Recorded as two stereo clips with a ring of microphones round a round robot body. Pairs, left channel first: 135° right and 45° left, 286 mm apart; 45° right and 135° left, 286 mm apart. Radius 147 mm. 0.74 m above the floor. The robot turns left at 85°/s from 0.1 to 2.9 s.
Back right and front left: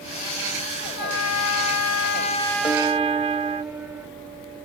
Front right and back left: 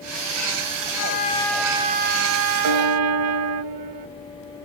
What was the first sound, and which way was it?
A trumpet, 85° right.